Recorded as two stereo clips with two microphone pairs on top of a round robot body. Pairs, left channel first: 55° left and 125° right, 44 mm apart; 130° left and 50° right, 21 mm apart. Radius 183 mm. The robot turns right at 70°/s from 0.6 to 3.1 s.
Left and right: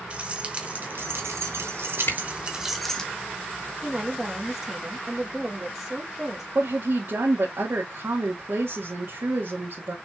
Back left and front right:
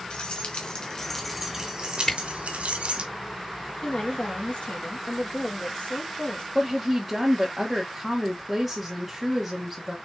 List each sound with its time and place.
0.1 s keys jangling: 175° left, 0.7 m; by 3.1 s 10° right, 0.7 m
2.1 s a camera shutter: 65° left, 3.5 m; by 2.2 s 75° left, 3.5 m
3.8 s a woman speaking: 150° left, 1.8 m
6.5 s a woman speaking: 125° right, 1.8 m